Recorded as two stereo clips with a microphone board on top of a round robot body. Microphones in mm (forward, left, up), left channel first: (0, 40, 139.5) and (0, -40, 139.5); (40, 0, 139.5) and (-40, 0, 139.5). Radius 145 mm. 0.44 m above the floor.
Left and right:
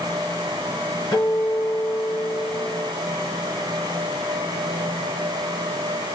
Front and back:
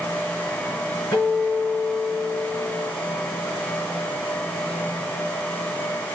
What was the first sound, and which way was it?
A guitar, 55° left.